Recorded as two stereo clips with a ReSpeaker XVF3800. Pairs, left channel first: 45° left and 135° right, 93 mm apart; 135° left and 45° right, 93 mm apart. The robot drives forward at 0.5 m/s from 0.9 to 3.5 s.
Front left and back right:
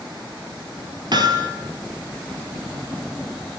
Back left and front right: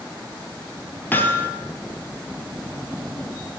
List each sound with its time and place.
1.1 s hammering: 160° right, 1.3 m